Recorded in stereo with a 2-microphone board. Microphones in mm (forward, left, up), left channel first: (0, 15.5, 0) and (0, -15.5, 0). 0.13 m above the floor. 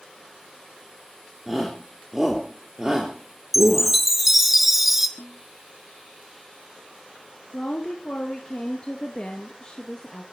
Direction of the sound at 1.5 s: 5° right (ahead or behind).